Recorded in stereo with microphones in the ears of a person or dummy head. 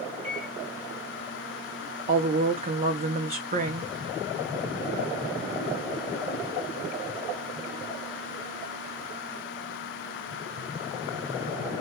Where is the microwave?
55° right (ahead or behind), 3 m.